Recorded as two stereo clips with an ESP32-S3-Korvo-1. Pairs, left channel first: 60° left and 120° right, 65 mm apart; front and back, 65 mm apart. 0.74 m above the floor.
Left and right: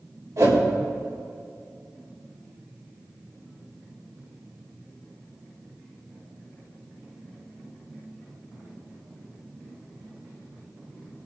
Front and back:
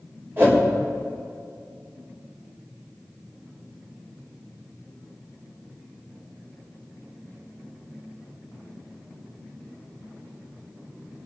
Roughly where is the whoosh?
Behind right.